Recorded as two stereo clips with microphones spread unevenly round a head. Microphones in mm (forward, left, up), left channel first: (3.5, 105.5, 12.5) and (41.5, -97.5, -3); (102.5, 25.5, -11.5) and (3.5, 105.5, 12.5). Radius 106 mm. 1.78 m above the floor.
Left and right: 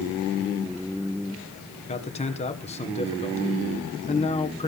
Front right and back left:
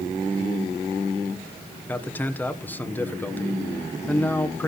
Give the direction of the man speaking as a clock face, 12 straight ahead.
11 o'clock.